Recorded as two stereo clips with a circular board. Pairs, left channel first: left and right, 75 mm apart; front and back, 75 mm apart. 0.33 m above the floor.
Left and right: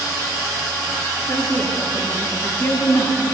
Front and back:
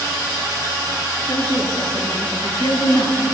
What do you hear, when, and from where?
1.3 s a woman speaking: 30° left, 5.5 m; by 3.2 s 45° left, 5 m